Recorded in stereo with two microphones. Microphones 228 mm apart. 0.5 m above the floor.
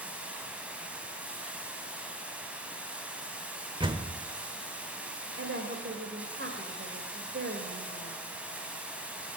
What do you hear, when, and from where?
0.0 s running water: 5° right (ahead or behind), 3.5 m
3.8 s a door slam: 20° right (ahead or behind), 1.2 m
5.4 s a woman speaking: 65° right (ahead or behind), 2 m